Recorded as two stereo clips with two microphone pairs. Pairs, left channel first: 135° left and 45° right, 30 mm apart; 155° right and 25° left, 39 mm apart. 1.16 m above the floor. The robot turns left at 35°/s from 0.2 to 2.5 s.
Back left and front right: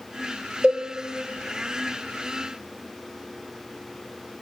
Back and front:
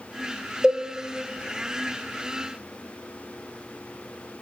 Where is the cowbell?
25° right, 0.6 m; by 0.8 s 30° right, 0.6 m.